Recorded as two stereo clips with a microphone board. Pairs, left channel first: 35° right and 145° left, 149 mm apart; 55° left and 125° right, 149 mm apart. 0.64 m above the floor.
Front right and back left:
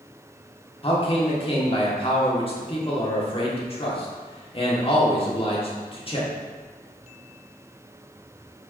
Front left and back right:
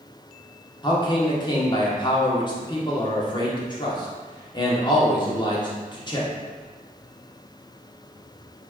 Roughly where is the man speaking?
Ahead.